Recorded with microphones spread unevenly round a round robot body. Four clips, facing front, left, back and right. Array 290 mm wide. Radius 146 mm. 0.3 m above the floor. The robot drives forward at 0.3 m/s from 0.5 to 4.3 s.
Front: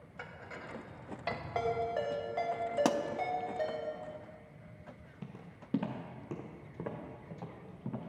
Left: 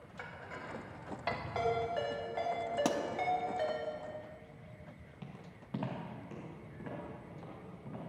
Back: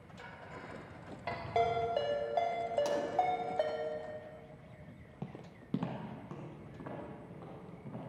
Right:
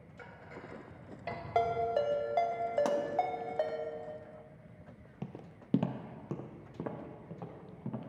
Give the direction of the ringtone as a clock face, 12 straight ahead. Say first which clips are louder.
Right 5 dB, back 3 dB; 3 o'clock.